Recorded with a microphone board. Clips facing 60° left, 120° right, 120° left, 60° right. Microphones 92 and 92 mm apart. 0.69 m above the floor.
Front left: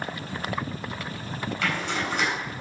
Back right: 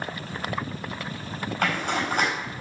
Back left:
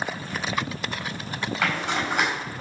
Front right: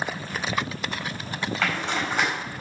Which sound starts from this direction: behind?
A zipper, at 1.6 s.